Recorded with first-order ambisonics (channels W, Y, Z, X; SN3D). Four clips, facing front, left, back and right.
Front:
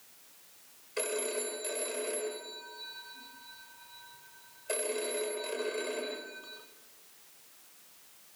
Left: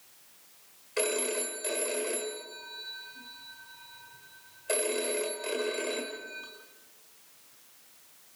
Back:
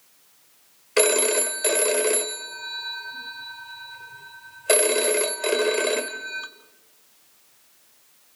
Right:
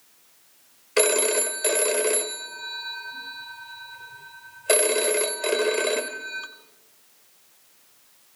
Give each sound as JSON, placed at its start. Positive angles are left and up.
{"t": 1.0, "sound": "a phone ringing", "azimuth_deg": -145, "distance_m": 1.4}